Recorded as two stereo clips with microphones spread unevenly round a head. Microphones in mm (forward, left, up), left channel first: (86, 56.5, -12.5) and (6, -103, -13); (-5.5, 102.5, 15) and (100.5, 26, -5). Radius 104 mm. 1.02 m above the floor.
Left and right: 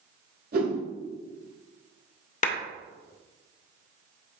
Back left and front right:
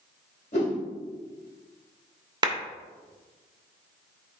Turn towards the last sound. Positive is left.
turn(degrees=20)